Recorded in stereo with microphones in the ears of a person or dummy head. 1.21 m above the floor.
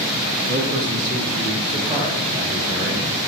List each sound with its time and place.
0.5 s a man speaking: 60° right (ahead or behind), 3 m; by 3.2 s 10° right (ahead or behind), 4 m